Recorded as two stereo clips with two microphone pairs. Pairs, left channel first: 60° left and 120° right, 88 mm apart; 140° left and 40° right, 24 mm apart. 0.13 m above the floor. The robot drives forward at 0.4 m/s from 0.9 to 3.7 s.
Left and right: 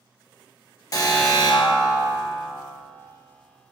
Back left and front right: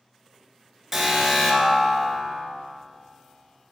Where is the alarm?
35° left, 1.5 m; by 2.5 s 65° left, 1.2 m.